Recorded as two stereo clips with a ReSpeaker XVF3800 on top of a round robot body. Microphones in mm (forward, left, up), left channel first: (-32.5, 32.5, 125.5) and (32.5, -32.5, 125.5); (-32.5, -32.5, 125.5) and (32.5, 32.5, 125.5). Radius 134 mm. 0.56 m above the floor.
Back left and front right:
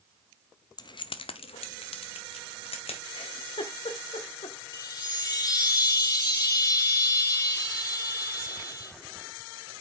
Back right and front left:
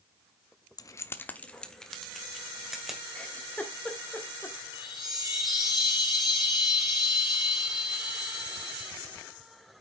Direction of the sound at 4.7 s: 175° right.